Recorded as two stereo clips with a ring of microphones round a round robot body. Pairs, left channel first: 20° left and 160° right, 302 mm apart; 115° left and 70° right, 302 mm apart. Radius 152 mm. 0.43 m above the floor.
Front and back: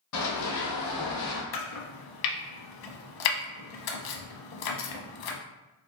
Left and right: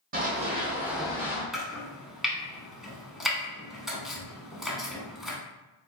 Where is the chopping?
20° left, 0.5 m.